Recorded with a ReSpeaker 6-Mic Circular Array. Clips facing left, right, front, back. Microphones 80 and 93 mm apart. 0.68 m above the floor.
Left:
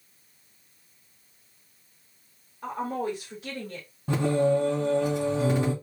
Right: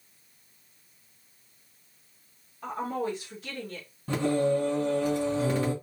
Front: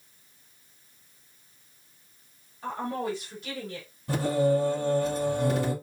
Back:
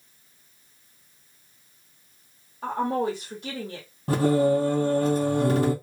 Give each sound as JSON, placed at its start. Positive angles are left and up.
{"t": 2.6, "sound": "a woman speaking", "azimuth_deg": 175, "distance_m": 2.0}
{"t": 4.1, "sound": "singing", "azimuth_deg": 165, "distance_m": 2.0}